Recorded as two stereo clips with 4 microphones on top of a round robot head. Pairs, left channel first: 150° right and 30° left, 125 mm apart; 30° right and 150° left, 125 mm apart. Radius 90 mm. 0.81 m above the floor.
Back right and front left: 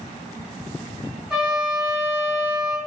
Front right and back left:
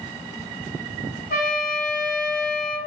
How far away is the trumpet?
About 1.7 m.